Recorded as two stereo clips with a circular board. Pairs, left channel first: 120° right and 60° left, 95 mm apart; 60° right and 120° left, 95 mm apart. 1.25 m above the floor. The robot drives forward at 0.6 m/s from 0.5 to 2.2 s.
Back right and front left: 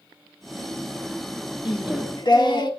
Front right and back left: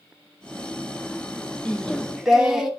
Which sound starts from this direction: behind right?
Singing, at 1.6 s.